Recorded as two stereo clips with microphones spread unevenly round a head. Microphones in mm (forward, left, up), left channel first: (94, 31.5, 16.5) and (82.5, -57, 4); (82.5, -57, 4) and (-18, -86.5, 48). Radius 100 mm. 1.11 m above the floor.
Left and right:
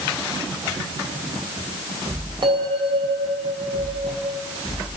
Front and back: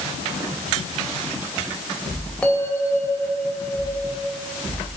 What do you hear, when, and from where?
2.4 s a bell: 65° right, 3.5 m